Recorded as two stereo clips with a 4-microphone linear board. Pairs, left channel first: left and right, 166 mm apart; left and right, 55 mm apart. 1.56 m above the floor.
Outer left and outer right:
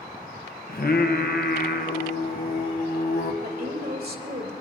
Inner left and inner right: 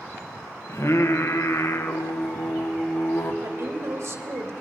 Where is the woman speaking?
65° right (ahead or behind), 2.5 m.